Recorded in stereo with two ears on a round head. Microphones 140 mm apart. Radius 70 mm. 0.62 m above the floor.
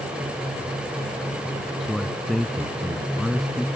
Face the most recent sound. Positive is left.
turn(degrees=0)  # may be behind; listen again after turning